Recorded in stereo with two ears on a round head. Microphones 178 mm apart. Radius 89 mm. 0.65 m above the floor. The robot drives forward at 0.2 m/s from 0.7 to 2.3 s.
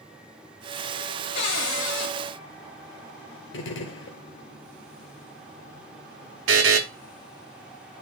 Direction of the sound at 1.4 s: 65° left (ahead or behind).